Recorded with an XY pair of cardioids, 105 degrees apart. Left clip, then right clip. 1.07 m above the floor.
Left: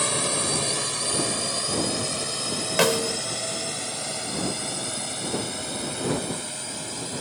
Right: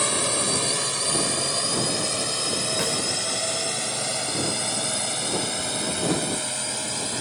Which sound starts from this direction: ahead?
A drone, at 0.0 s.